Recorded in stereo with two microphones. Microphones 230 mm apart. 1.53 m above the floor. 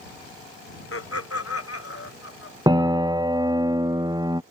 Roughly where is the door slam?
I don't hear a door slam.